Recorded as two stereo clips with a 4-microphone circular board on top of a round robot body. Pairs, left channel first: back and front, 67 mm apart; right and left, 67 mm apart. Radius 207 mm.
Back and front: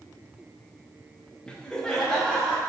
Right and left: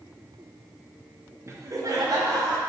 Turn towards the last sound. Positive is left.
turn(degrees=100)